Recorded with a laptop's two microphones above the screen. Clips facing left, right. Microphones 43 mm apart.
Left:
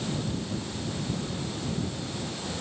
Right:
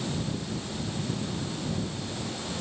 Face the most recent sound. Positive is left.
No sound to turn to.